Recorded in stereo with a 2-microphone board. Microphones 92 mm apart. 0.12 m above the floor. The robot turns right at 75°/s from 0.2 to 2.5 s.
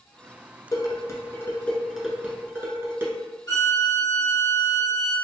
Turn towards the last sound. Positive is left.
turn(degrees=35)  # may be behind; listen again after turning